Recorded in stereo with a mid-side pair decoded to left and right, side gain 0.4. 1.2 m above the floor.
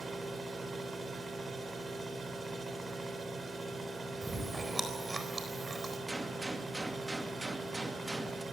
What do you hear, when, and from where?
0.0 s a machine running: 40° right, 4.5 m
4.2 s chewing: 30° right, 4 m
6.1 s a gunshot: 20° right, 2.5 m